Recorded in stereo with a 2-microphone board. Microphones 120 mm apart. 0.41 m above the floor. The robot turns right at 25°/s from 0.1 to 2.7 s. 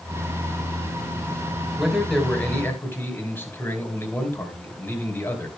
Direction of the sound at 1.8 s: 5° right (ahead or behind).